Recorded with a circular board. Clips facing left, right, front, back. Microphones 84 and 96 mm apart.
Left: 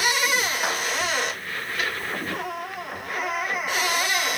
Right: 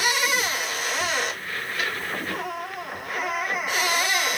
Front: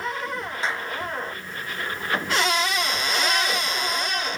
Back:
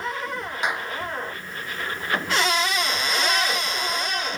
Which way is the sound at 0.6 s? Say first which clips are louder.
Left 4 dB, back 2 dB; 105° left.